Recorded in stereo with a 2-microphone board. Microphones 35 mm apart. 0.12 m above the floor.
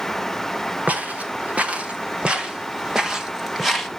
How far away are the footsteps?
About 3 m.